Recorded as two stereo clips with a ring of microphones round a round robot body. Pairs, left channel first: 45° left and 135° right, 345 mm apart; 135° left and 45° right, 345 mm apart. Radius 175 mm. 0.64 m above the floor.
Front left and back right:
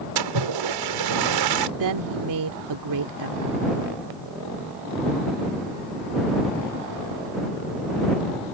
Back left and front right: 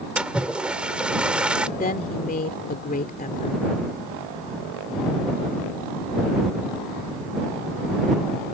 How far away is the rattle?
No rattle in this recording.